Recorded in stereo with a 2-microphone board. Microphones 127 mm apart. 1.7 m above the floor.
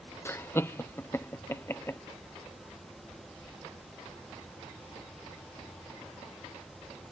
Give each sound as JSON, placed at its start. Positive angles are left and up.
{"t": 0.2, "sound": "laughter", "side_deg": 20}